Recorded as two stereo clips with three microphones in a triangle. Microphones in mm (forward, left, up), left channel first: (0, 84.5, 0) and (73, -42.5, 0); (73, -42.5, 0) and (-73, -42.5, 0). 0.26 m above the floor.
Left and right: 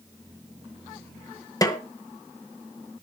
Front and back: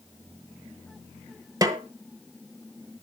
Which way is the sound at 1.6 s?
150° left.